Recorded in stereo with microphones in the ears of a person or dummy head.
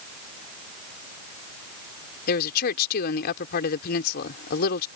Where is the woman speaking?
55° left (ahead or behind).